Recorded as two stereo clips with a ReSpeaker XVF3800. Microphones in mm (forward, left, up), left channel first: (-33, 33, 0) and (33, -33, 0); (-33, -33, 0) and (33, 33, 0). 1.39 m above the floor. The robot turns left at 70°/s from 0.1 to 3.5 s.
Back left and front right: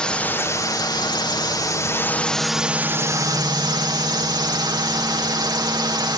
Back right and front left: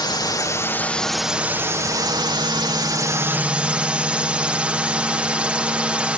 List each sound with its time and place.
0.0 s a drone: 150° right; by 6.2 s 30° right